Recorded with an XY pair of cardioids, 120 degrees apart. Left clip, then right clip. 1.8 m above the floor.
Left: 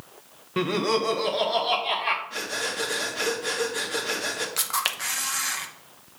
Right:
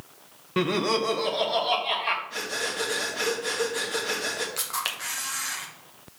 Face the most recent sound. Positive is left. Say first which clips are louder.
# left 3 dB
turn(degrees=25)